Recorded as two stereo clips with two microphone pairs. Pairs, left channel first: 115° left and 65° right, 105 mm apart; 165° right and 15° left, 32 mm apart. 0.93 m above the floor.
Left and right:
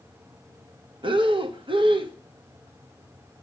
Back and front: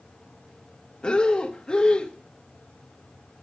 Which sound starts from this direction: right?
Breathing, at 1.0 s.